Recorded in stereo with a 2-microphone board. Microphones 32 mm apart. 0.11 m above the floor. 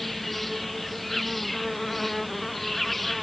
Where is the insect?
5° left (ahead or behind).